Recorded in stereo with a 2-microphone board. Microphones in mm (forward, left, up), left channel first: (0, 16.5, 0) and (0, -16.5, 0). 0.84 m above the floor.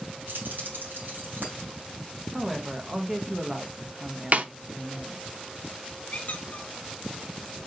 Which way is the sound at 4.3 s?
50° right (ahead or behind).